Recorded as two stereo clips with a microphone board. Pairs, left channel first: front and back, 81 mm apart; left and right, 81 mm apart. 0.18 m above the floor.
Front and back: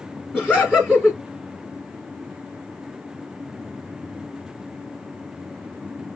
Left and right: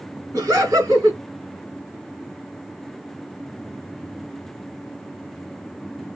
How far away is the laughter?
About 1.3 m.